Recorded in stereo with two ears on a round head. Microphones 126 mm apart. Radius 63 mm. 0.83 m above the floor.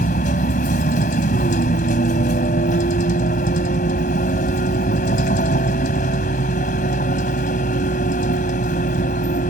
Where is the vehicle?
60° left (ahead or behind).